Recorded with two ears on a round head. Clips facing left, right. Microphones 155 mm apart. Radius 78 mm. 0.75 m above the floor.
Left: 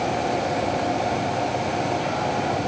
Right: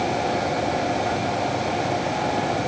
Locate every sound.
Only background noise.